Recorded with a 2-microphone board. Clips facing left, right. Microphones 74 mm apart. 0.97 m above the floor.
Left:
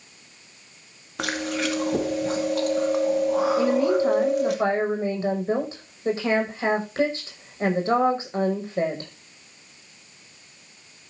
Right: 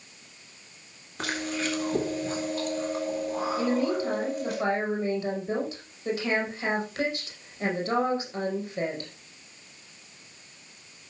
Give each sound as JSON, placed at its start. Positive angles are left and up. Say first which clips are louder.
{"t": 1.2, "sound": "chewing", "louder": "left 4 dB", "side_deg": 65, "distance_m": 2.0}
{"t": 3.6, "sound": "a woman speaking", "louder": "left 6 dB", "side_deg": 30, "distance_m": 5.5}